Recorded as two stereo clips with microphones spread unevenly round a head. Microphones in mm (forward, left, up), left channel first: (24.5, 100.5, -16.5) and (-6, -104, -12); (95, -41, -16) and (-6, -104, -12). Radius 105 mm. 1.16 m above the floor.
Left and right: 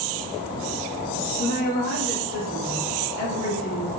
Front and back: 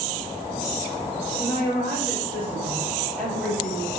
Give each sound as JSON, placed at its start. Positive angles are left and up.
{"t": 1.4, "sound": "a woman speaking", "azimuth_deg": 130, "distance_m": 2.0}